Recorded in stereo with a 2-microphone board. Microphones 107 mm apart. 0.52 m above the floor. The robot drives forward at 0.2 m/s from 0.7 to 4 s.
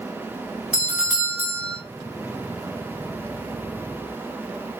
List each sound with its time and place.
0.7 s a doorbell: 15° right (ahead or behind), 2 m